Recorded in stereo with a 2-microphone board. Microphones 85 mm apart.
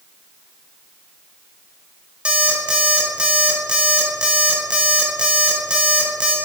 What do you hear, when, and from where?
2.2 s an alarm clock: 15° right (ahead or behind), 2 m